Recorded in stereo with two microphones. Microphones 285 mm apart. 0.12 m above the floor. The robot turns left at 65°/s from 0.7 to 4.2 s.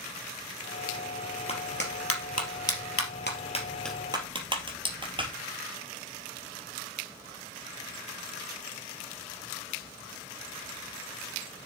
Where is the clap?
20° left (ahead or behind), 2.5 m; by 5.3 s 15° right (ahead or behind), 2.5 m.